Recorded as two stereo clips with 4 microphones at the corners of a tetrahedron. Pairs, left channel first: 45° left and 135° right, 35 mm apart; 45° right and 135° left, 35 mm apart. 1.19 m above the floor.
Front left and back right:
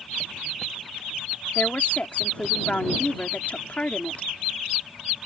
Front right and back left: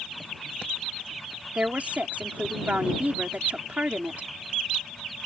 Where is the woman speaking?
95° left.